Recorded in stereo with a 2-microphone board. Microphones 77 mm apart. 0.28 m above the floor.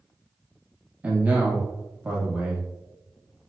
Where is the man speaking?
20° right (ahead or behind), 1.2 m.